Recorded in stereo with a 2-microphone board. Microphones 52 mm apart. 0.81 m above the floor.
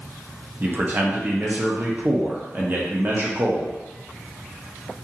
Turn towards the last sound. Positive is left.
turn(degrees=-35)  # may be behind; listen again after turning